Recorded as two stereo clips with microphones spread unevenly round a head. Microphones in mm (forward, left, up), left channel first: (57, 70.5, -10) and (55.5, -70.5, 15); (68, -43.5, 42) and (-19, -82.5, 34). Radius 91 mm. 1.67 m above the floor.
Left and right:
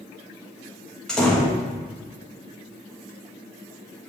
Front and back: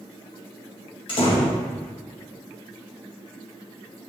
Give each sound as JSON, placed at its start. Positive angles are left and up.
{"t": 1.1, "sound": "a door slam", "azimuth_deg": 0, "distance_m": 1.8}